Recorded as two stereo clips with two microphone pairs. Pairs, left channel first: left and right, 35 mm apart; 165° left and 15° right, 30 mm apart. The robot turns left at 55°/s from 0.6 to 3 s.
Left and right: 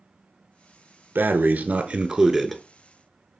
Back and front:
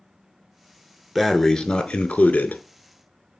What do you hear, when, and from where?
1.1 s breathing: 110° right, 0.8 m; by 3.4 s 150° left, 0.8 m